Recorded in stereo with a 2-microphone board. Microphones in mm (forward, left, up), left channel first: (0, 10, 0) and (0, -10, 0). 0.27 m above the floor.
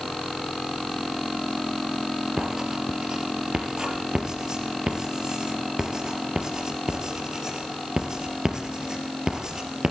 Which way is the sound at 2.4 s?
35° right (ahead or behind).